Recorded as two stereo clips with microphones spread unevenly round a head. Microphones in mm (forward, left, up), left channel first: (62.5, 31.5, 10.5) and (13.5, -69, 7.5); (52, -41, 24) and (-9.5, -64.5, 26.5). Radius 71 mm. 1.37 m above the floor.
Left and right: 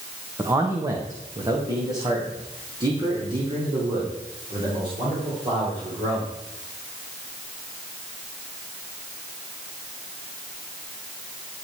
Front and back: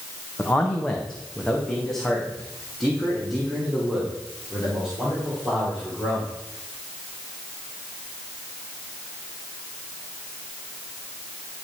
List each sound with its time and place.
0.4 s a man speaking: 50° right, 1.3 m; by 6.3 s 75° right, 4.5 m